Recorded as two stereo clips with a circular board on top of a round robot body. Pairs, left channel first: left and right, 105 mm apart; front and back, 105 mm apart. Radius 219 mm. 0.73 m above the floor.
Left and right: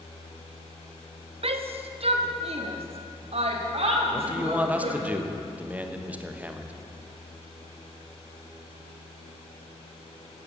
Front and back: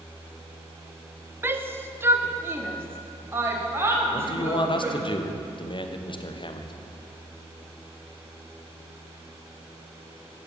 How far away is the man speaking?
About 1.4 m.